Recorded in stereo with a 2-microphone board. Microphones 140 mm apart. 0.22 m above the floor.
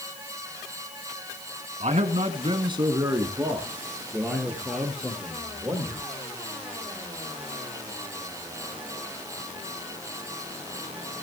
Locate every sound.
1.8 s a man speaking: 55° right (ahead or behind), 2 m; by 6.0 s 10° left (ahead or behind), 6 m